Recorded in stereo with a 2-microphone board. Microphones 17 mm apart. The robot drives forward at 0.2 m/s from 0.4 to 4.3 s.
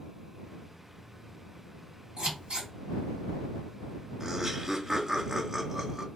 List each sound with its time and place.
2.2 s scissors: 70° right (ahead or behind), 1.7 m; by 2.7 s 65° right (ahead or behind), 1.8 m
4.2 s laughter: 30° right (ahead or behind), 0.7 m